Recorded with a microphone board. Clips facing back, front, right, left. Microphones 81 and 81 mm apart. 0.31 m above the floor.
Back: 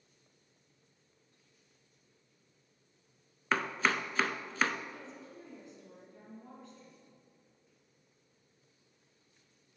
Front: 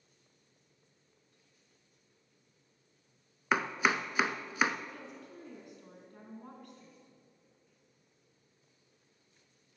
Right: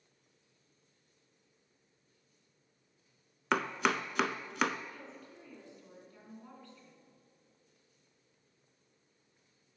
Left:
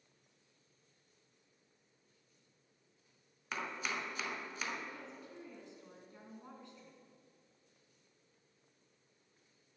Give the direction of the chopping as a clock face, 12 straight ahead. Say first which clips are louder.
Front 1 dB, right 10 dB; 3 o'clock.